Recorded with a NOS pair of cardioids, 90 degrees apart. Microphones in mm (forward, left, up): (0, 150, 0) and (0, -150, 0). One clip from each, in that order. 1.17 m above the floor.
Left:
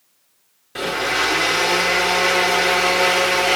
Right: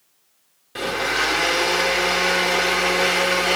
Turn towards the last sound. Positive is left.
turn(degrees=5)